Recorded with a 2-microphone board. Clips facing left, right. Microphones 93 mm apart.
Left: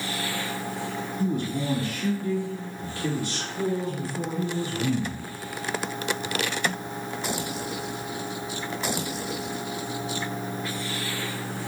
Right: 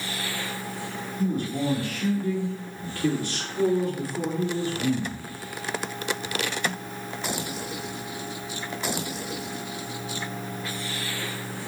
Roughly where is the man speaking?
Right.